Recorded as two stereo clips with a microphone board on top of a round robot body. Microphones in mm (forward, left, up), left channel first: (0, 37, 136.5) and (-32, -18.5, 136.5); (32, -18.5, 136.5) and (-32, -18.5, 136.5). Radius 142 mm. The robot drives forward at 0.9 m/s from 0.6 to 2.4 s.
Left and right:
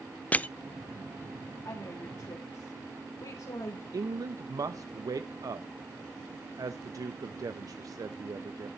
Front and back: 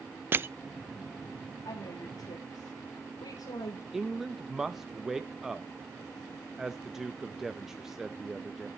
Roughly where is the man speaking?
Right.